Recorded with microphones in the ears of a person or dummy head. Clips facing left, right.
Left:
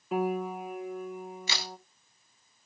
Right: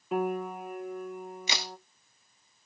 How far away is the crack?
About 1.9 m.